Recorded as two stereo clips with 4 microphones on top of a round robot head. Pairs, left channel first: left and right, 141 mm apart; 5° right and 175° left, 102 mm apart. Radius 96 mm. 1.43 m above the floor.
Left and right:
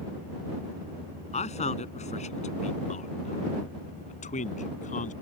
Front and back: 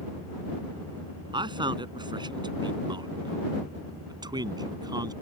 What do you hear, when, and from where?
1.3 s a man speaking: 130° left; by 5.1 s 125° left